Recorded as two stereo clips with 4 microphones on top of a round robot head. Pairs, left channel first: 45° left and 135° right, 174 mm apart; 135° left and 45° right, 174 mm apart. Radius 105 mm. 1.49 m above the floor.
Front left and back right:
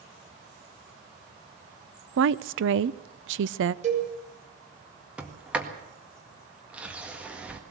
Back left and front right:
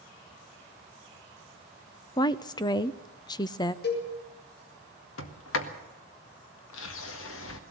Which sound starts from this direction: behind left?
A sliding door, at 5.2 s.